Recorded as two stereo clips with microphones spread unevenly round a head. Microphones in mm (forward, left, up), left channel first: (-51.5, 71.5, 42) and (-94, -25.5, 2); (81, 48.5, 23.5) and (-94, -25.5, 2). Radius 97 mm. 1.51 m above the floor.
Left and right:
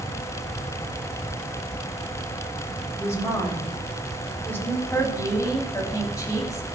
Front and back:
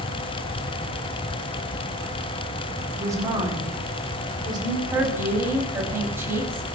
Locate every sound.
3.0 s a woman speaking: 130° left, 8.5 m; by 4.8 s 135° left, 7.5 m
4.9 s a woman speaking: 125° left, 8 m